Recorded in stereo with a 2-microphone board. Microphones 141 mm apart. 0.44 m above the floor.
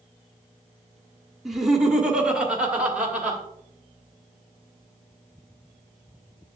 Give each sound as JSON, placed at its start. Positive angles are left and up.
{"t": 1.4, "sound": "laughter", "side_deg": 0, "distance_m": 1.3}